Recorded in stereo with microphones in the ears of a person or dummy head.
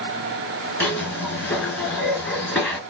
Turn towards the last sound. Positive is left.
turn(degrees=10)  # may be behind; listen again after turning